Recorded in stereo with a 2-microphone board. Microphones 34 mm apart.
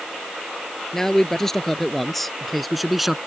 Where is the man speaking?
10° left (ahead or behind); by 3.2 s 5° right (ahead or behind).